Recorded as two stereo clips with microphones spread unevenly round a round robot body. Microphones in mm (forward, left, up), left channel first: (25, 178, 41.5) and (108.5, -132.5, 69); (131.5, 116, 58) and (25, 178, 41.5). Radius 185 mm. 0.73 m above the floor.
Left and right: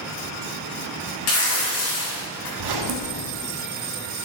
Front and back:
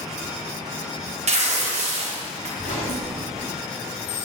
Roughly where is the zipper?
Right.